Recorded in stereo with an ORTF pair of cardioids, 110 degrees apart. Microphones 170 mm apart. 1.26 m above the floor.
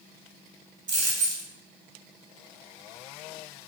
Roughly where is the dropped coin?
Ahead right.